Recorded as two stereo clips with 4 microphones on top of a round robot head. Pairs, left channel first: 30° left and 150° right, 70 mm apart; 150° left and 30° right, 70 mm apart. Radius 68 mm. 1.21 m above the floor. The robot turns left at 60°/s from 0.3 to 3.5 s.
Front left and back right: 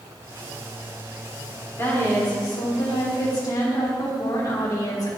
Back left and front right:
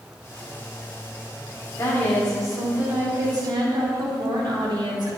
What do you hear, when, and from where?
1.8 s a woman speaking: 95° left, 3.5 m; by 5.1 s 5° right, 3.5 m